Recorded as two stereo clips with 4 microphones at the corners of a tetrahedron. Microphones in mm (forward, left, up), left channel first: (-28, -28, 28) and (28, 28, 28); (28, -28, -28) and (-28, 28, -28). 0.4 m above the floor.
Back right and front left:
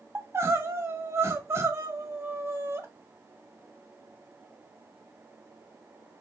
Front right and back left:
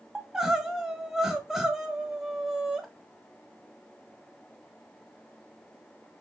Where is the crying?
60° left, 0.6 m.